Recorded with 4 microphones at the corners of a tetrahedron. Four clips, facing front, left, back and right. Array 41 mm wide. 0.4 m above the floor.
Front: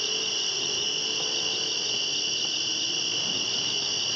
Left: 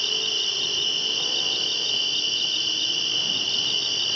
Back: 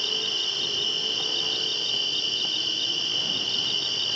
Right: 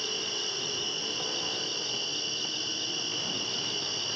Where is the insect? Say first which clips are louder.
Left 8 dB, back 2 dB; 110° left.